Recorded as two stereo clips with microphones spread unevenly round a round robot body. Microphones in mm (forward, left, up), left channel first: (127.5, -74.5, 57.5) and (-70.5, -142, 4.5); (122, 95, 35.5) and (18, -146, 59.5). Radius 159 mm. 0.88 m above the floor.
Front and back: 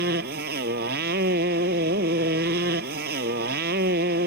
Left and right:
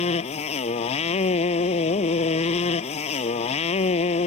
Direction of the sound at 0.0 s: 140° left.